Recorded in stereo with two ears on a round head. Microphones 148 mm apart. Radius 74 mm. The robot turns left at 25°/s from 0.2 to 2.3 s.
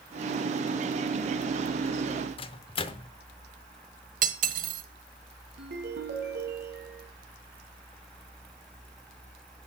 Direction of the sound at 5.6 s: 70° right (ahead or behind).